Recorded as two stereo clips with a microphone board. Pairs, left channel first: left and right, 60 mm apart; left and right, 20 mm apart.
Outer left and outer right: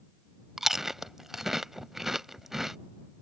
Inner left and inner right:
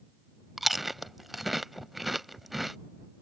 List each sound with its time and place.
0.6 s chewing: 5° right (ahead or behind)